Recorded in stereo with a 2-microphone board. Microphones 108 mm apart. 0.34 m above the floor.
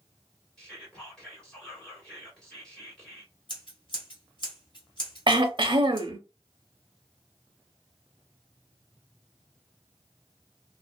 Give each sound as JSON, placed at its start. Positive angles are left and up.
{"t": 0.6, "sound": "whispering", "side_deg": 5, "distance_m": 1.7}
{"t": 3.5, "sound": "scissors", "side_deg": 45, "distance_m": 1.2}
{"t": 5.3, "sound": "throat clearing", "side_deg": -50, "distance_m": 0.5}